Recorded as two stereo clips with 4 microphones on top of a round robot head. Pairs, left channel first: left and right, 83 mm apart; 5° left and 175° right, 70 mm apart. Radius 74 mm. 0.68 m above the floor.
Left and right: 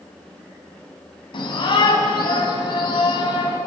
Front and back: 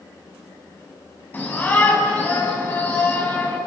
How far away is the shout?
About 5.5 m.